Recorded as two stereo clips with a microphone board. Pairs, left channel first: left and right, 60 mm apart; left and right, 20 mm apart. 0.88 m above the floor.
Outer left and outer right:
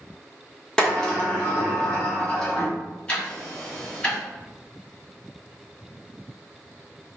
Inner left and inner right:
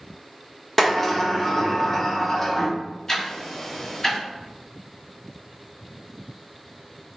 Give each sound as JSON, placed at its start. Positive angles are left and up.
{"t": 0.8, "sound": "a sliding door", "side_deg": 15, "distance_m": 0.9}
{"t": 3.1, "sound": "ticking", "side_deg": 20, "distance_m": 1.2}